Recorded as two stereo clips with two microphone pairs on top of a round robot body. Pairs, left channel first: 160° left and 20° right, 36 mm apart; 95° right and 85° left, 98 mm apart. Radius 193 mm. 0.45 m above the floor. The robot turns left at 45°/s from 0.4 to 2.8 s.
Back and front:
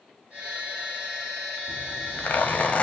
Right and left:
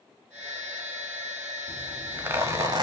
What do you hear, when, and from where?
1.7 s a zipper: 175° left, 1.5 m; by 2.8 s 125° left, 1.5 m